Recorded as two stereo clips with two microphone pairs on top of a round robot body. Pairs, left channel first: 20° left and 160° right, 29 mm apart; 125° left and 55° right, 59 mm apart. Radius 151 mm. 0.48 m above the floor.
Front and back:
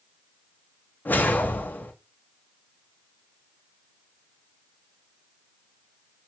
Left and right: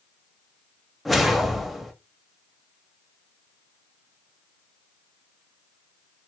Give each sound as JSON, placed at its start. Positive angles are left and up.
{"t": 1.1, "sound": "a whoosh", "azimuth_deg": 30, "distance_m": 0.8}